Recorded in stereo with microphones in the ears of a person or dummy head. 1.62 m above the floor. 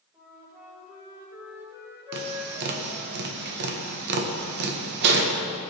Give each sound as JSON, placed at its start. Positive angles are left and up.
{"t": 0.1, "sound": "a flute", "side_deg": -20, "distance_m": 5.0}
{"t": 2.1, "sound": "tapping", "side_deg": -60, "distance_m": 1.7}